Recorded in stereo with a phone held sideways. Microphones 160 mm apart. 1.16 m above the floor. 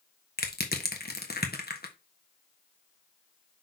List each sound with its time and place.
0.4 s crushing: 80° left, 1.3 m